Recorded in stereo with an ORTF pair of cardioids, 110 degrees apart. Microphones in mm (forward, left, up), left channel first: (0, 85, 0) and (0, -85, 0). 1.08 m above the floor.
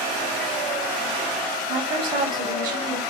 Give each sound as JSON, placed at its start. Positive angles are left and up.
{"t": 1.7, "sound": "a woman speaking", "azimuth_deg": -50, "distance_m": 2.0}